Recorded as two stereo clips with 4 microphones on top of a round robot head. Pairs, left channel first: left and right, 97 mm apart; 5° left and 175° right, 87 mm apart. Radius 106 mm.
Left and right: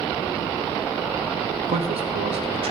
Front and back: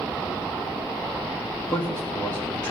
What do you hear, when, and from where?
1.7 s a man speaking: 65° right, 1.1 m